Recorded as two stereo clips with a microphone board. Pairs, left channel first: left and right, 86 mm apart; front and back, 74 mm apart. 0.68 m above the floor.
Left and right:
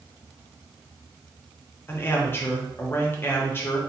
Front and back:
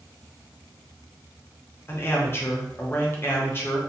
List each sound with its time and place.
1.9 s a man speaking: 40° left, 0.7 m